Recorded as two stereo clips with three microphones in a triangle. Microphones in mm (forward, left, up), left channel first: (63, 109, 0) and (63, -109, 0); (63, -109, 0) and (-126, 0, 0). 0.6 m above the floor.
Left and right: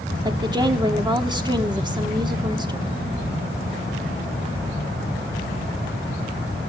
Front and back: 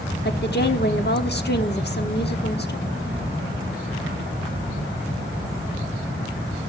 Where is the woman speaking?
25° right, 1.2 m.